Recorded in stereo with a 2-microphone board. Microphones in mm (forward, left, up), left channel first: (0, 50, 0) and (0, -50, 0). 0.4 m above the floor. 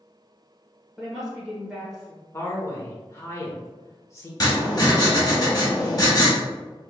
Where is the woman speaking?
5° right (ahead or behind), 0.9 m.